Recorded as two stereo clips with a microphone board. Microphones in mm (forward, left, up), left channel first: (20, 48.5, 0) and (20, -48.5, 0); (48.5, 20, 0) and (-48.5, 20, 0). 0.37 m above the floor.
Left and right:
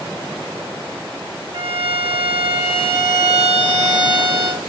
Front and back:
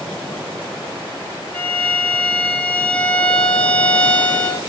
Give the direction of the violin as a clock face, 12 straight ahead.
2 o'clock.